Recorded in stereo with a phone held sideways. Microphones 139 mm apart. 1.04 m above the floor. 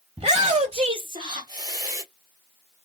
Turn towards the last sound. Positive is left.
turn(degrees=-20)  # may be behind; listen again after turning